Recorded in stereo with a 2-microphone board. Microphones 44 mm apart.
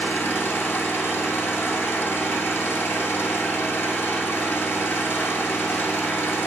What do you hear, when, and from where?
0.0 s an engine running: 60° left (ahead or behind), 2.5 m